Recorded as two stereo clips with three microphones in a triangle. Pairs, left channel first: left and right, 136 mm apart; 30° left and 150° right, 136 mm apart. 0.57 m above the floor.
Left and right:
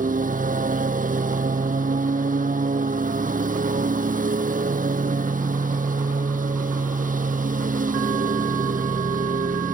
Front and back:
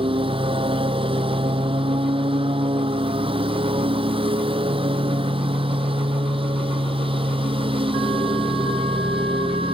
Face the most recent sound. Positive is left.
turn(degrees=-100)